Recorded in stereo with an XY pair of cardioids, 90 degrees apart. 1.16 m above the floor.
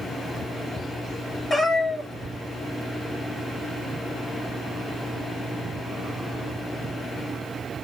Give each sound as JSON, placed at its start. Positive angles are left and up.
{"t": 1.5, "sound": "a cat meowing", "azimuth_deg": 25, "distance_m": 1.1}